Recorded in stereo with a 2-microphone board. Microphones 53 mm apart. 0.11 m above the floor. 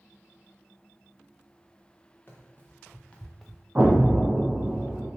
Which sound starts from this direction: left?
Running footsteps, at 2.3 s.